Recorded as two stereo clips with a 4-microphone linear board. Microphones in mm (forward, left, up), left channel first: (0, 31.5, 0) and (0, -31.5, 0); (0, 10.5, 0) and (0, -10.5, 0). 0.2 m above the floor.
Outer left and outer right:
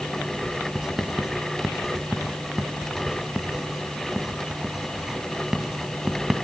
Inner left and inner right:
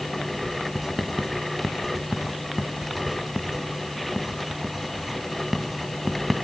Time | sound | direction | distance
0.8 | writing | 10° right (ahead or behind) | 1.7 m